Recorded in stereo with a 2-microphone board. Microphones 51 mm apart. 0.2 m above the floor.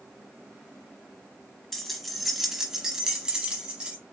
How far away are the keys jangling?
About 1.0 m.